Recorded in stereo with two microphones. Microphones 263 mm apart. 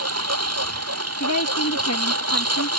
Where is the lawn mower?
70° right (ahead or behind).